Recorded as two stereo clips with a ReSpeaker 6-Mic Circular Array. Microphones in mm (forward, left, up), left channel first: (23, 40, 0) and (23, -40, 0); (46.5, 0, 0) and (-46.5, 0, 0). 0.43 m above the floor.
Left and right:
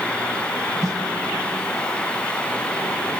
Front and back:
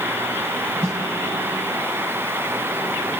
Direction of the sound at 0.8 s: 125° right.